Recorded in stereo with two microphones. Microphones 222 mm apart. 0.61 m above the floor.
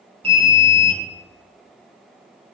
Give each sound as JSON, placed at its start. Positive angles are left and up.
{"t": 0.2, "sound": "an alarm", "side_deg": -25, "distance_m": 1.6}